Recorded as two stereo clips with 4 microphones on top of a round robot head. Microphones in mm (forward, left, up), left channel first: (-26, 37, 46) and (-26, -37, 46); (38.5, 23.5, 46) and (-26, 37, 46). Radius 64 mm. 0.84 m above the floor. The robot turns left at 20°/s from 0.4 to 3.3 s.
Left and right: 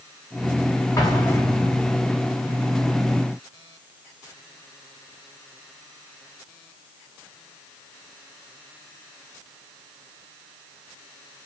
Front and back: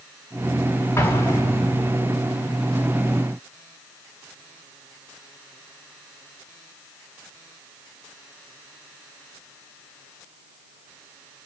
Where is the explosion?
35° left, 3.5 m; by 2.0 s 15° left, 3.5 m.